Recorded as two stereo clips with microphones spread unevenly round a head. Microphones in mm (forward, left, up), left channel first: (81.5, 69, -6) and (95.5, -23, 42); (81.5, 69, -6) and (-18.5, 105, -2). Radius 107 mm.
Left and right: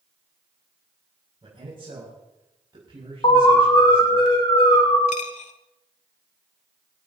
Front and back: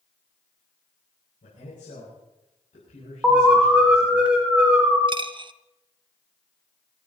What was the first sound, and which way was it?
A man speaking, 40° right.